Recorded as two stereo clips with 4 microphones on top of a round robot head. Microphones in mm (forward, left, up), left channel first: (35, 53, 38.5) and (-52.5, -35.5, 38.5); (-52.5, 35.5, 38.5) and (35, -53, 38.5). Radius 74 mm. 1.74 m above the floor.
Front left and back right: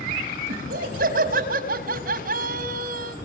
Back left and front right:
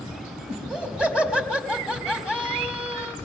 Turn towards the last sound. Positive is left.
turn(degrees=-130)